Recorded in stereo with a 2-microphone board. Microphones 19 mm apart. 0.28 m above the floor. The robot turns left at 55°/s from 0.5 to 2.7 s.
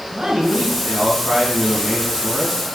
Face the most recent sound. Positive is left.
turn(degrees=150)